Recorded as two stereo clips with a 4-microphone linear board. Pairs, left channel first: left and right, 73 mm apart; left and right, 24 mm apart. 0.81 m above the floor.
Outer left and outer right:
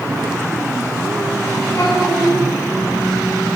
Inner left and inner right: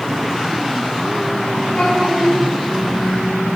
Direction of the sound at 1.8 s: 50° left (ahead or behind).